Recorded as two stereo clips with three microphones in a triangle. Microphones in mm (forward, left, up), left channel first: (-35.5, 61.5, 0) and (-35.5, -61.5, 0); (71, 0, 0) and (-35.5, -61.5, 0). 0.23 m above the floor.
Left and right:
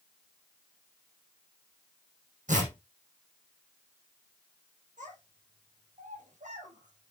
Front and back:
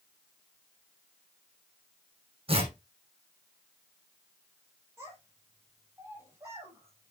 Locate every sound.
2.5 s tearing paper: 105° right, 5.5 m
5.0 s a child speaking: 80° right, 5.5 m